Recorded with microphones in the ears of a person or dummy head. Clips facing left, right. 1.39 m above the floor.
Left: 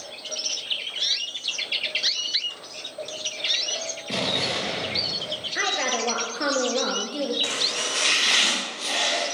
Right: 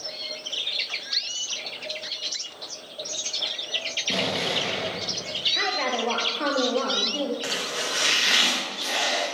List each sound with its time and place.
4.1 s an explosion: centre (ahead or behind), 1.2 m
5.5 s a woman speaking: 10° left (ahead or behind), 0.9 m
7.4 s chopping: 5° right (ahead or behind), 1.8 m